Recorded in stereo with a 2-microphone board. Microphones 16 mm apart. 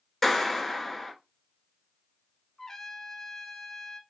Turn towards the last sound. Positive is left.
turn(degrees=35)  # may be behind; listen again after turning